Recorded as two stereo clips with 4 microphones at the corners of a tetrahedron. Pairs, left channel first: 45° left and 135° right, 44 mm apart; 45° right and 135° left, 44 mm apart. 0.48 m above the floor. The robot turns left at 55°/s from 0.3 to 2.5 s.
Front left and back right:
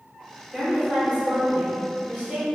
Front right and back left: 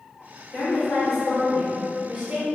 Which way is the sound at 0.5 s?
70° right.